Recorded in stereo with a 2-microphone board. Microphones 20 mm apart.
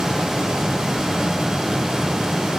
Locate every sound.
Only background noise.